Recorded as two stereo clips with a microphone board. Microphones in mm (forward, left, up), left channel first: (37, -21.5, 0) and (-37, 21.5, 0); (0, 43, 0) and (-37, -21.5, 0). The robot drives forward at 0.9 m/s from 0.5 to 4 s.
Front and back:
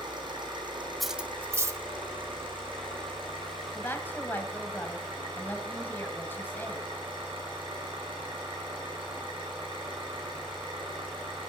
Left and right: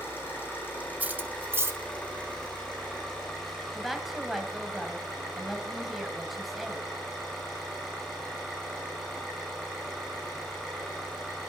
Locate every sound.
0.0 s an engine running: 120° left, 4.5 m; by 11.5 s 145° left, 6.5 m
1.0 s cutlery clinking: 115° right, 0.5 m; by 1.8 s 170° right, 0.9 m
3.8 s a woman speaking: 25° right, 1.5 m; by 6.9 s 35° right, 1.4 m